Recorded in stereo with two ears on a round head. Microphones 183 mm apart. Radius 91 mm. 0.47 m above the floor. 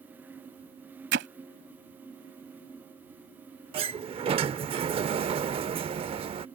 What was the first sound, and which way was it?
Hammering, 55° right (ahead or behind).